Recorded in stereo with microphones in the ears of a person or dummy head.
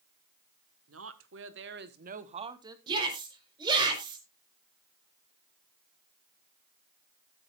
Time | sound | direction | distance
0.9 | a woman speaking | 75° right (ahead or behind) | 1.5 m
2.9 | a shout | 25° right (ahead or behind) | 4 m